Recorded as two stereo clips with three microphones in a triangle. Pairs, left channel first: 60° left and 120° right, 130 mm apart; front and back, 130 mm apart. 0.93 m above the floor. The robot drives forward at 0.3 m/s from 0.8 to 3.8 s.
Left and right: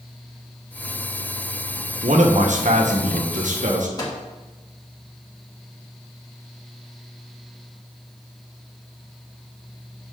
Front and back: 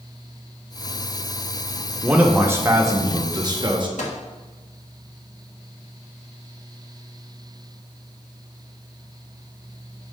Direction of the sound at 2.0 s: 100° right.